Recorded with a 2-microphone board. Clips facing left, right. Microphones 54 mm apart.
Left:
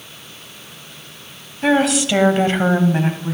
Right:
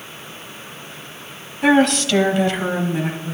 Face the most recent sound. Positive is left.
turn(degrees=70)  # may be behind; listen again after turning